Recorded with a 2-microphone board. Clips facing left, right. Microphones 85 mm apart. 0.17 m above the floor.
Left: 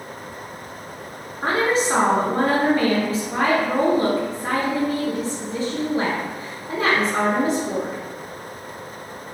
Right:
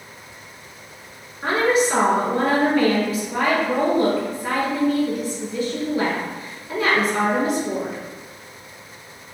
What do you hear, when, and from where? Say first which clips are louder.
1.4 s a woman speaking: right 1 dB; 30° left (ahead or behind), 1.6 m